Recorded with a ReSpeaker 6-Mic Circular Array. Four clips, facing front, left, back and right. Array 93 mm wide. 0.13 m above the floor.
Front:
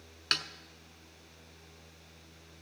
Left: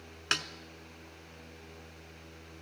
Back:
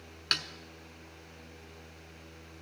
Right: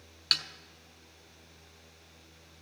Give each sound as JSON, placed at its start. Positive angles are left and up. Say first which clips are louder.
{"t": 0.3, "sound": "a snare drum", "louder": "left 5 dB, even", "azimuth_deg": 85, "distance_m": 0.6}